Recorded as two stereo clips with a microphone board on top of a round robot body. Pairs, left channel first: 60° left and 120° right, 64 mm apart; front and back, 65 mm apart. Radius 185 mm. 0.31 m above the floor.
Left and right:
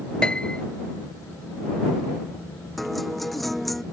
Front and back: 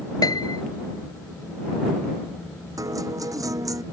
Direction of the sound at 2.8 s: 150° left.